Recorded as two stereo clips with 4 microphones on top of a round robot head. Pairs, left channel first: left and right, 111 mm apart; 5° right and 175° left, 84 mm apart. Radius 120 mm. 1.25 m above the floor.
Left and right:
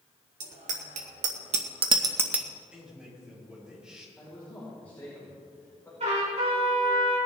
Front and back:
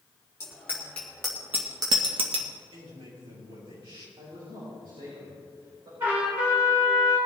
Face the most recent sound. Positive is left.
turn(degrees=-115)